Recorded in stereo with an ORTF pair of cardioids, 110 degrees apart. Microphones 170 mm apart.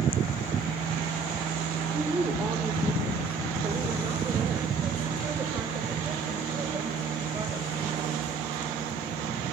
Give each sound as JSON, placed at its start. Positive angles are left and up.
{"t": 1.9, "sound": "a woman speaking", "azimuth_deg": -10, "distance_m": 3.5}